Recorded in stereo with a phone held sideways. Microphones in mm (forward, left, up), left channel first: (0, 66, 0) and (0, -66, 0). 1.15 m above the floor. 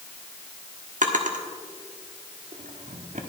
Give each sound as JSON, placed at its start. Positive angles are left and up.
{"t": 1.0, "sound": "a drawer", "side_deg": -70, "distance_m": 1.3}